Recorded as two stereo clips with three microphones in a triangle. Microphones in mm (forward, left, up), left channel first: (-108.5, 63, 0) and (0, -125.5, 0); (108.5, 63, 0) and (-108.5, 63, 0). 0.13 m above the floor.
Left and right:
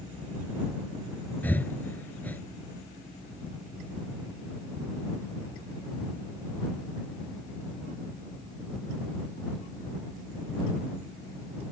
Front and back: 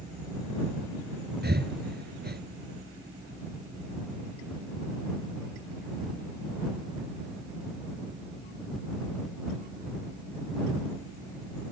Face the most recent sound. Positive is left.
turn(degrees=-160)